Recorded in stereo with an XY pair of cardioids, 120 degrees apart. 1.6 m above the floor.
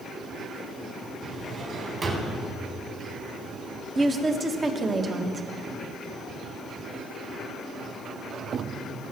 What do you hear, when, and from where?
1.2 s a drawer: 40° right, 4 m
4.0 s a woman speaking: 30° right, 1.6 m